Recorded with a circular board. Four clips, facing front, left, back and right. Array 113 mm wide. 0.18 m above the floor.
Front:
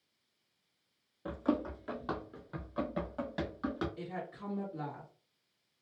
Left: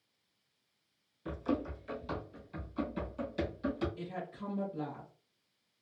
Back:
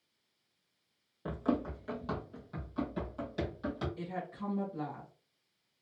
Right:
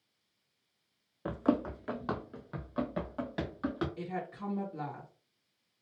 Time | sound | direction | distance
1.2 | running footsteps | 100° right | 0.6 m
4.0 | a woman speaking | 100° right | 1.8 m